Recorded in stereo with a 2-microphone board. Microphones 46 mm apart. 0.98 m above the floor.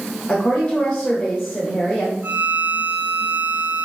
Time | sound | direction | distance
0.3 | a woman speaking | 40° left (ahead or behind) | 0.9 m
2.2 | a violin | 45° right (ahead or behind) | 0.7 m